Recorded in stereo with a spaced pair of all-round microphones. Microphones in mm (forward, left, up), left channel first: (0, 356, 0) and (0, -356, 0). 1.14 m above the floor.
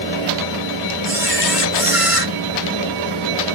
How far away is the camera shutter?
About 1.6 m.